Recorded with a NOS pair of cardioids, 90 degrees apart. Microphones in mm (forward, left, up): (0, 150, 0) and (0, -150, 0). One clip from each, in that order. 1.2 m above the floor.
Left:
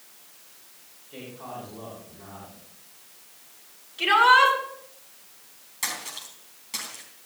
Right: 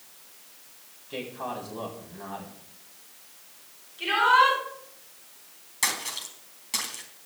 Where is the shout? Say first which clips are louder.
Left 3 dB; 60° left, 8.5 m.